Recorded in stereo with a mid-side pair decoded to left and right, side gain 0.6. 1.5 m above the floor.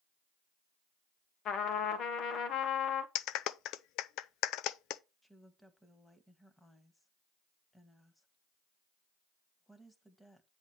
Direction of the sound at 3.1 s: 65° left.